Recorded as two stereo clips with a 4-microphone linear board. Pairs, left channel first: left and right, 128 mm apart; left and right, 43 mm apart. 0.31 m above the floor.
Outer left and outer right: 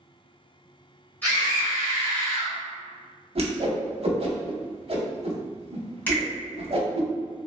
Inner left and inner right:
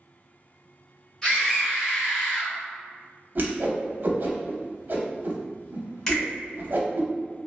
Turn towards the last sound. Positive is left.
turn(degrees=15)  # may be behind; listen again after turning